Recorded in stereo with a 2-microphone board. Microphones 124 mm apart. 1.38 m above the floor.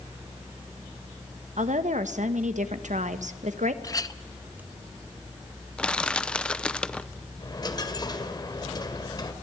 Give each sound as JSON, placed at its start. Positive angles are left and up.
{"t": 1.6, "sound": "a woman speaking", "side_deg": -80, "distance_m": 1.2}
{"t": 3.8, "sound": "a clink", "side_deg": 30, "distance_m": 0.7}
{"t": 5.8, "sound": "crushing", "side_deg": 10, "distance_m": 0.7}
{"t": 7.4, "sound": "a dropped coin", "side_deg": 35, "distance_m": 2.0}